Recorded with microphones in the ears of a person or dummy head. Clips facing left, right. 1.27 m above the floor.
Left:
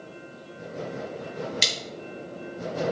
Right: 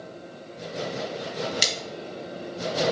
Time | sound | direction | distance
1.6 | a splash | 10° right (ahead or behind) | 1.0 m